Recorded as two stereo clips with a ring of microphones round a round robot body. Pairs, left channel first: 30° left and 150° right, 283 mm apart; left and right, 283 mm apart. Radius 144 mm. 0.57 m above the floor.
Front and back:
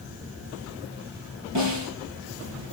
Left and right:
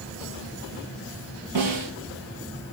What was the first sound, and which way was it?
A snare drum, 115° right.